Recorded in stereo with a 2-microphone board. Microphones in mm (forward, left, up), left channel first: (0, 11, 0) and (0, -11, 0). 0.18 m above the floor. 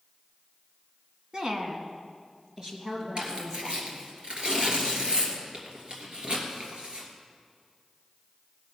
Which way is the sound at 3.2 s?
55° right (ahead or behind).